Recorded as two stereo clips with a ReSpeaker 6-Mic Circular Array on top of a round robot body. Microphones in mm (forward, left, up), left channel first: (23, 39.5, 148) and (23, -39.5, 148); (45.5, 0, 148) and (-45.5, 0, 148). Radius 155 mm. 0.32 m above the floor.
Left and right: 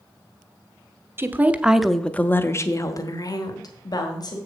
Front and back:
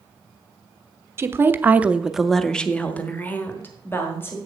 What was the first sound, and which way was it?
A woman speaking, 135° right.